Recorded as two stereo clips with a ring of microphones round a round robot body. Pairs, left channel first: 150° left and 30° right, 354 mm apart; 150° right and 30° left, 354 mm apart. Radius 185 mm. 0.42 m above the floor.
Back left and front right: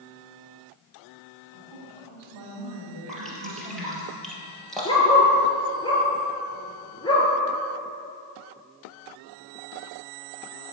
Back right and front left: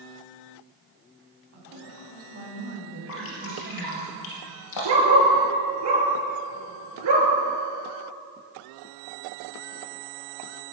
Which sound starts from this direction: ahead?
A woman speaking, at 1.5 s.